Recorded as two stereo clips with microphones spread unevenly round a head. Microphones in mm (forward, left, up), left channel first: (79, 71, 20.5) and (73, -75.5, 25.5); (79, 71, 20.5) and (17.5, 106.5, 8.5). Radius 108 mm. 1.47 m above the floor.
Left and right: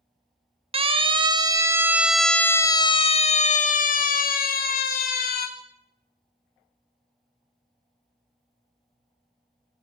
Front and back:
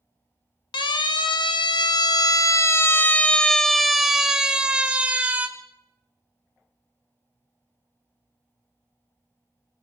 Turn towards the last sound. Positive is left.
turn(degrees=80)